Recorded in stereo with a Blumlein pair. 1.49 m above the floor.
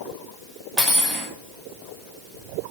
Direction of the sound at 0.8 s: 10° right.